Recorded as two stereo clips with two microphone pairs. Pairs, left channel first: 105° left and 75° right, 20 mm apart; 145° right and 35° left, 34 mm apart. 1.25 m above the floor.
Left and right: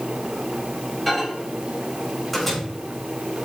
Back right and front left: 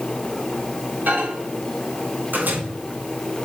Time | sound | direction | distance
1.1 | a microwave | 15° left | 4.5 m